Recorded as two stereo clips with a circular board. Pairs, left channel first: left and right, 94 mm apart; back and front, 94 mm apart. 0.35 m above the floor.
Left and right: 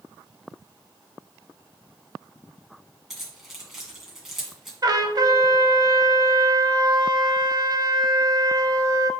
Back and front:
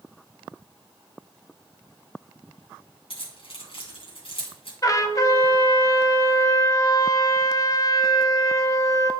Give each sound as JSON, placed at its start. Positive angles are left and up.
{"t": 3.1, "sound": "keys jangling", "azimuth_deg": -175, "distance_m": 2.0}
{"t": 4.8, "sound": "a trumpet", "azimuth_deg": -130, "distance_m": 0.6}